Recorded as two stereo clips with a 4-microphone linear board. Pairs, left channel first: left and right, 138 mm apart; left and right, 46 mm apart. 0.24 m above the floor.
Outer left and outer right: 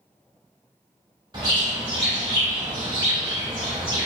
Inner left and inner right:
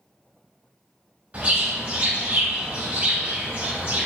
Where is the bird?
35° right (ahead or behind), 0.9 m.